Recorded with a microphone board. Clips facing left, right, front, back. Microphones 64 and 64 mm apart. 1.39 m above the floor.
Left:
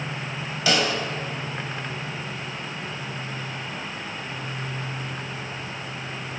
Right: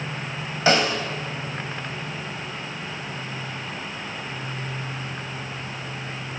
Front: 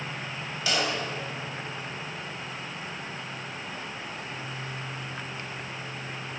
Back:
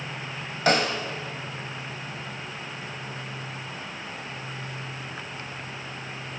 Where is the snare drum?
140° right, 2.5 m.